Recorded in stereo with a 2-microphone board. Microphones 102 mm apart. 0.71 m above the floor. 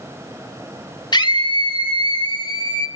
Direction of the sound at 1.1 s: 45° left (ahead or behind).